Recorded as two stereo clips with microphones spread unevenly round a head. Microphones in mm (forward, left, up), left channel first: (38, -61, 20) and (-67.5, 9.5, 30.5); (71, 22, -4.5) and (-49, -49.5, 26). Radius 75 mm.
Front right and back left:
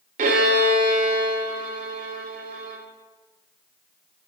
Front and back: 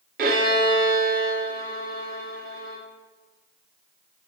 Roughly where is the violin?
Behind.